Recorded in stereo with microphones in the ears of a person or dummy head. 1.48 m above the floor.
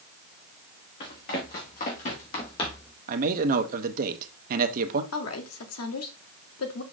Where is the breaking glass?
I don't hear breaking glass.